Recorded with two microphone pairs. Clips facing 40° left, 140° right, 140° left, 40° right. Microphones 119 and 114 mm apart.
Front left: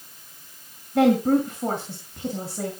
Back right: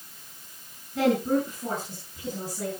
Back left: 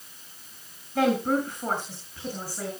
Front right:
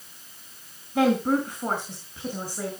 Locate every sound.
0.9 s a woman speaking: 35° left, 4.5 m; by 2.7 s 30° left, 6 m